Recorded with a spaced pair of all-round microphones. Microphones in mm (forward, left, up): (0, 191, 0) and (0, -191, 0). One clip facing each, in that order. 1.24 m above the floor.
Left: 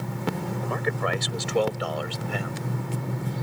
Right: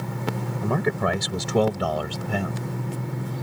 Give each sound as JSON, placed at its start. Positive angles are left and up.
{"t": 0.6, "sound": "a man speaking", "side_deg": -60}